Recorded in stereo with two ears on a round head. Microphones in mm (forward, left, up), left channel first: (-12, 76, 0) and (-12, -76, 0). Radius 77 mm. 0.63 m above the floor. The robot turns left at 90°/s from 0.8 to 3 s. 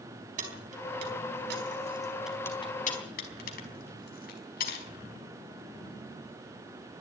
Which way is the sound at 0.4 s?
45° right (ahead or behind).